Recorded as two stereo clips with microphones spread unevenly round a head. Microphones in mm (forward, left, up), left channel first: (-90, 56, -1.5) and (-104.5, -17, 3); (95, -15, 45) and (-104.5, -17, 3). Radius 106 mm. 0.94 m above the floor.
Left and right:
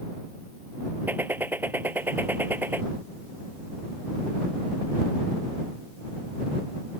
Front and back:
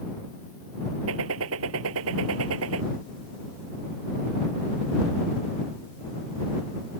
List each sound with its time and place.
1.1 s a gunshot: 165° right